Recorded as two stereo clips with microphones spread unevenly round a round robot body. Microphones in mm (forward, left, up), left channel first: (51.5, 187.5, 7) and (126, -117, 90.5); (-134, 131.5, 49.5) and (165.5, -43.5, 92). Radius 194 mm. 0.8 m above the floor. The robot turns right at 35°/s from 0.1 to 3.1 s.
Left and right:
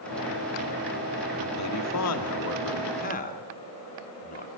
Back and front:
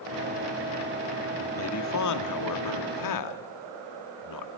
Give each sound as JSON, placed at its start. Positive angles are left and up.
{"t": 1.6, "sound": "a man speaking", "azimuth_deg": 105, "distance_m": 2.5}